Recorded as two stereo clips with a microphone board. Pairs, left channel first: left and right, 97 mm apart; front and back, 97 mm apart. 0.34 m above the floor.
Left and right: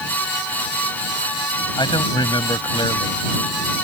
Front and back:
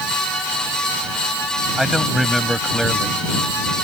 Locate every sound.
1.8 s a man speaking: 90° left